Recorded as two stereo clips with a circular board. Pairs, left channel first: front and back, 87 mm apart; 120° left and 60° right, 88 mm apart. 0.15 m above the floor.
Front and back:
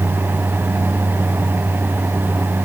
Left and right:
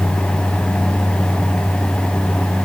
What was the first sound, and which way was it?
Only background noise.